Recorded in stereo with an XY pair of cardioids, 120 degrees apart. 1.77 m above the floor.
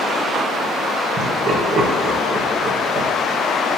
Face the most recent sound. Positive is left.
turn(degrees=-50)